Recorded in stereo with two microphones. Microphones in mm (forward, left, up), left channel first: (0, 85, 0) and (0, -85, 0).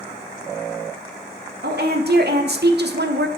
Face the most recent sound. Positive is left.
turn(degrees=-85)